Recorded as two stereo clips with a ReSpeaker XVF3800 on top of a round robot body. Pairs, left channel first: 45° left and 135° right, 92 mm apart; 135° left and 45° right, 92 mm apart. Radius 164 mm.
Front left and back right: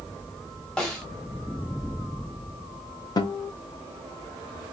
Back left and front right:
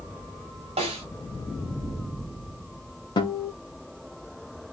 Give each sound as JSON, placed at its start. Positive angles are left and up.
{"t": 0.8, "sound": "a snare drum", "azimuth_deg": -35, "distance_m": 0.9}
{"t": 3.2, "sound": "a guitar", "azimuth_deg": 95, "distance_m": 0.6}